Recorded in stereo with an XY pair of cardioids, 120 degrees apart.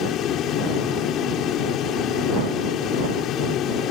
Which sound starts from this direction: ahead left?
A fan, at 0.0 s.